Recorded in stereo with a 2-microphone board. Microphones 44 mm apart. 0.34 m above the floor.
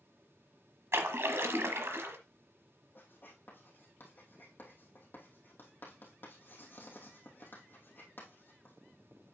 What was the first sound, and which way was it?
A splash, 65° right (ahead or behind).